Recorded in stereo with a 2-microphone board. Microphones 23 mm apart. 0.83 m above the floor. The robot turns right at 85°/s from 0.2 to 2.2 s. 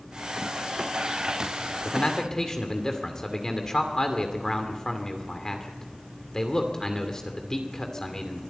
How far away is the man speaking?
About 2.5 m.